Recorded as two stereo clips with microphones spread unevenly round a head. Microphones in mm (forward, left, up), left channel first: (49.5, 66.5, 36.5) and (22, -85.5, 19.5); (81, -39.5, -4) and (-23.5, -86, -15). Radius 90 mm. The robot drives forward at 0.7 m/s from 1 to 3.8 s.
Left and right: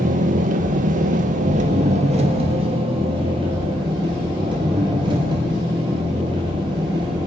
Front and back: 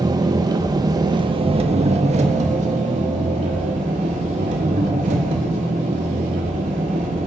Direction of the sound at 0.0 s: 110° right.